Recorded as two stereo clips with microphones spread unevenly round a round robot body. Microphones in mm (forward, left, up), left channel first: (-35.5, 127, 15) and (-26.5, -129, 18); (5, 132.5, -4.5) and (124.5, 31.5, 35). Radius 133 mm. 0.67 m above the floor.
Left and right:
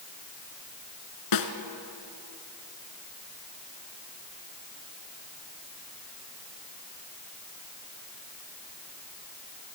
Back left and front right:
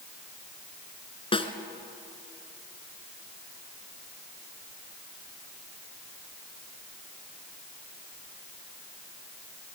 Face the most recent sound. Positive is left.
turn(degrees=80)